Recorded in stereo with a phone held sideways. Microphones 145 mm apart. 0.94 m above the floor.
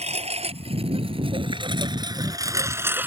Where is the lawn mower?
50° right (ahead or behind); by 3.1 s 10° right (ahead or behind).